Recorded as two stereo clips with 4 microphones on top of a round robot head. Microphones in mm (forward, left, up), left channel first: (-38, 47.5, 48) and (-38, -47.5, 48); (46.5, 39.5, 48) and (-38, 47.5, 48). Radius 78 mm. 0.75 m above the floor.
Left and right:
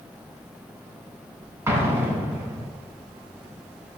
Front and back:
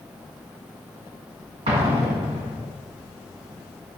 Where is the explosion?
155° right, 2.5 m.